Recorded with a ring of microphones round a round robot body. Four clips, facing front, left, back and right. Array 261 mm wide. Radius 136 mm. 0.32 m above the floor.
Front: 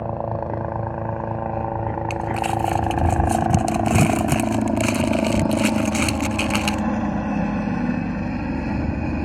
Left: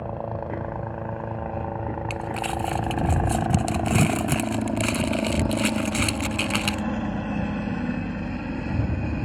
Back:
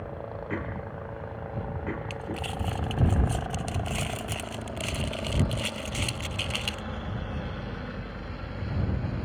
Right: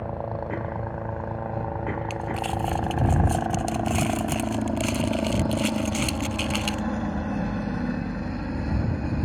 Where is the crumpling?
25° left.